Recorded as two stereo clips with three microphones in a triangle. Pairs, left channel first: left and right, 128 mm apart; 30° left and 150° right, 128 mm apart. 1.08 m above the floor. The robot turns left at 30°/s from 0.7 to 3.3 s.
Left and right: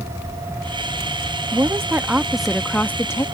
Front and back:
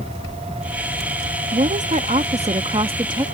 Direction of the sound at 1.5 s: 150° right.